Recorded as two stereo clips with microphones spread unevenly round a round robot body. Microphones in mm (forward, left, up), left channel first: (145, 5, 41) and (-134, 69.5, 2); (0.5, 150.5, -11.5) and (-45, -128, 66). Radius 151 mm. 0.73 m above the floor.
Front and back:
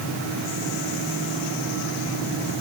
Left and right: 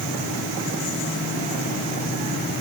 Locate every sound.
Only background noise.